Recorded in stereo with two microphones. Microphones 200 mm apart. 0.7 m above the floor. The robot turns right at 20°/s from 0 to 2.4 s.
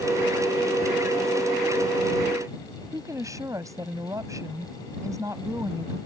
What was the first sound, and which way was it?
A woman speaking, 15° right (ahead or behind).